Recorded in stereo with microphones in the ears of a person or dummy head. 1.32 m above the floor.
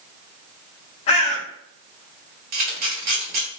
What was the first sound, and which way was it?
A bird, 25° left (ahead or behind).